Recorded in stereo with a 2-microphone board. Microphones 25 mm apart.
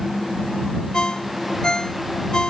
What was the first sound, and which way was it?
A ringtone, 35° left (ahead or behind).